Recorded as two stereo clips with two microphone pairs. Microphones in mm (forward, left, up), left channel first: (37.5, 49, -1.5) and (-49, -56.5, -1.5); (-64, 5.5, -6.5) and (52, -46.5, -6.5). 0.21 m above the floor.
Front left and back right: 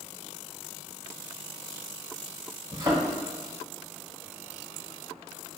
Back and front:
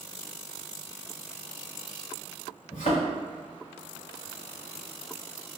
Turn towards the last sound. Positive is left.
turn(degrees=165)